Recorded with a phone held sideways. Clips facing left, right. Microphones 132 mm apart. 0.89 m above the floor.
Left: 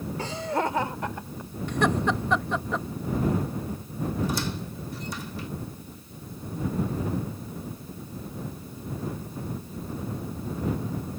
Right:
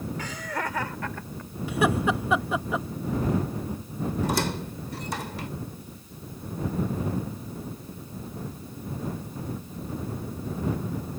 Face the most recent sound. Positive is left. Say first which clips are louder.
# right 2 dB
turn(degrees=-70)  # may be behind; listen again after turning